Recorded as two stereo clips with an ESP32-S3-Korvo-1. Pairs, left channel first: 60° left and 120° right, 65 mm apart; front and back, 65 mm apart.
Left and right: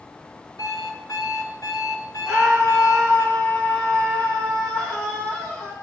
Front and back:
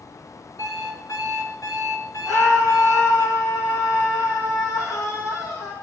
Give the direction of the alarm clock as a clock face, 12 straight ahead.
11 o'clock.